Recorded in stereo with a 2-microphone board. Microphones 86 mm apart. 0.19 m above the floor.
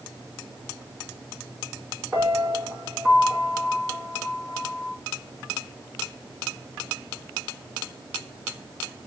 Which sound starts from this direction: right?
A piano, at 2.1 s.